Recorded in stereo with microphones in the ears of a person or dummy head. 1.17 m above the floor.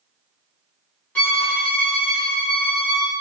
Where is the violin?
10° left (ahead or behind), 0.9 m.